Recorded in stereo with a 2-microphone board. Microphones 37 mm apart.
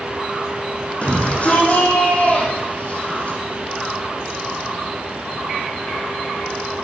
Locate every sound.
1.0 s a shout: 40° left (ahead or behind), 6.5 m